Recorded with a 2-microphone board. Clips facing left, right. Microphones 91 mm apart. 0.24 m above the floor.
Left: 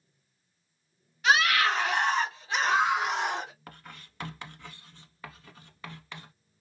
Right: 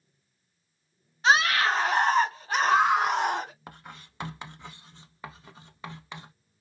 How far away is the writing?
About 0.6 m.